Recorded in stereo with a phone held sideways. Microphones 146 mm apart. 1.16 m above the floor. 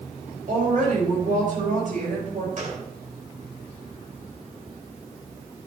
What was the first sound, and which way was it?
A woman speaking, 65° right (ahead or behind).